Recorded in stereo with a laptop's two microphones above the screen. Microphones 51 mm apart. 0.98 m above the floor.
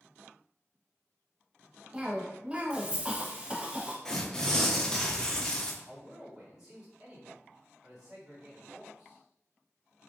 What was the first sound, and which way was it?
A cough, 20° right (ahead or behind).